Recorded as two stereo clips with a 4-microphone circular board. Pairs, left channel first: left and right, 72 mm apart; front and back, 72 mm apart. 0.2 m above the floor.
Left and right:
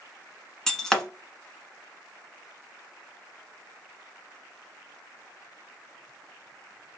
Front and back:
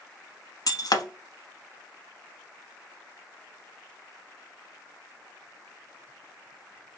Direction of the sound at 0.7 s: 10° left.